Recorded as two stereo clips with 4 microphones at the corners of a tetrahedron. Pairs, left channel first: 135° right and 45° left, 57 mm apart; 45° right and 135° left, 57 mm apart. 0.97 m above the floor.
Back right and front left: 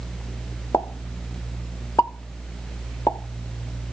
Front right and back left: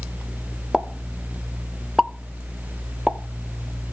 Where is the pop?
140° right, 0.8 m.